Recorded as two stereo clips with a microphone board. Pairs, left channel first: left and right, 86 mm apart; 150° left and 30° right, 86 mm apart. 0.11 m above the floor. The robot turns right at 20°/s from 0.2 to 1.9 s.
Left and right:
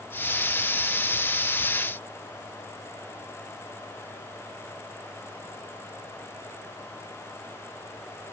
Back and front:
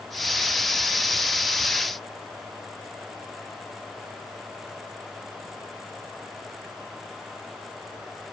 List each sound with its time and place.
Only background noise.